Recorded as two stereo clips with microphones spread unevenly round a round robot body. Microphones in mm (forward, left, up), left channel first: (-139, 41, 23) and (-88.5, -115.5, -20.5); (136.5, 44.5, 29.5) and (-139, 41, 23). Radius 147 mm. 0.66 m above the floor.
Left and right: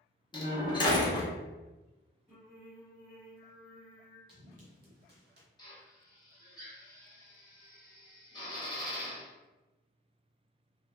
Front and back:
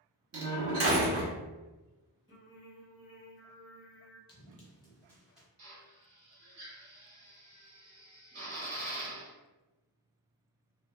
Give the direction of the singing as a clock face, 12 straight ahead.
2 o'clock.